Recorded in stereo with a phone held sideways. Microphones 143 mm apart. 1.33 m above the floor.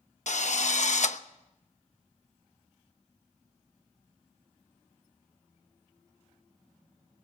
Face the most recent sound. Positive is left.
turn(degrees=60)  # may be behind; listen again after turning